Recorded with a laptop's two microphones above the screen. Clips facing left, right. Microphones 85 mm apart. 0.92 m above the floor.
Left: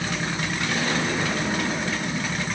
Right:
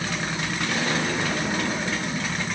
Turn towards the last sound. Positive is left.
No sound to turn to.